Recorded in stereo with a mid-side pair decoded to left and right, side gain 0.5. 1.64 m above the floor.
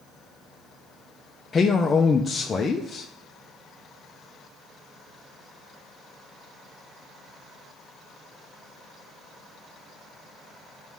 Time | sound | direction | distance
1.5 | a man speaking | 35° left | 0.6 m